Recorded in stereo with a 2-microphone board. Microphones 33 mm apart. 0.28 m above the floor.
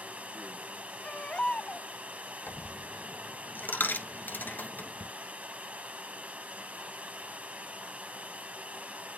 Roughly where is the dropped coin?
Left.